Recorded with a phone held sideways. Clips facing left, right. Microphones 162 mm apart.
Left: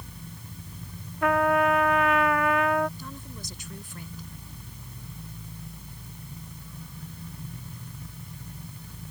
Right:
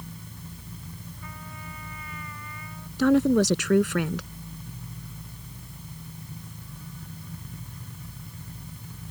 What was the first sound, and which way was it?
A trumpet, 80° left.